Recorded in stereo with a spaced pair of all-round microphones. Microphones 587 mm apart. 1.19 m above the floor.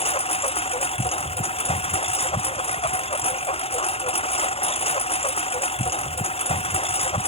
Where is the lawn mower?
10° left (ahead or behind).